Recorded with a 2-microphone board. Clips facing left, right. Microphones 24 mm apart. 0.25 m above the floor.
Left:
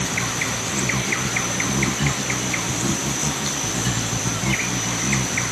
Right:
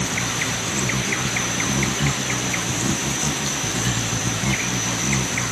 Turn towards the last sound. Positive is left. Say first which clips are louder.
# even
turn(degrees=5)  # may be behind; listen again after turning